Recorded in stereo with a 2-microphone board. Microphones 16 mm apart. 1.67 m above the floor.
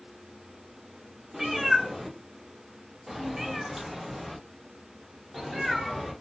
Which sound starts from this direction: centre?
A cat meowing, at 1.3 s.